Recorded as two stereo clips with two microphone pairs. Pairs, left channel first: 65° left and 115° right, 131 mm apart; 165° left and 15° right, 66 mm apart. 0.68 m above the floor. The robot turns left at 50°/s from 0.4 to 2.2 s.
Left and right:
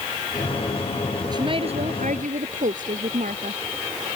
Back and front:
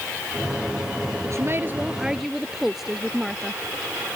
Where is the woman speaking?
50° right; by 3.6 s 100° right.